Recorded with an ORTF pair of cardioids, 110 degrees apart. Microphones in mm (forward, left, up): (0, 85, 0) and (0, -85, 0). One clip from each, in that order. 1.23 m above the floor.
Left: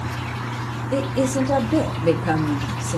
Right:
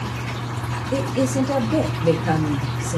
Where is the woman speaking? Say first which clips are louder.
Left 1 dB; 5° left, 0.9 m.